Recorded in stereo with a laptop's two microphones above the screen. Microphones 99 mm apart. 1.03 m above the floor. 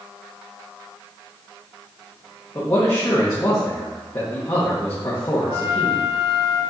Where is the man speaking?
35° left (ahead or behind), 1.4 m.